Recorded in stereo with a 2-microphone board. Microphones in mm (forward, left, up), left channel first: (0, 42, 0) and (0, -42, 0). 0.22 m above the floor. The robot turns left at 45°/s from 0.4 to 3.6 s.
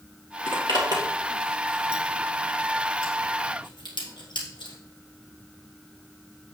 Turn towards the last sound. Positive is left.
turn(degrees=60)  # may be behind; listen again after turning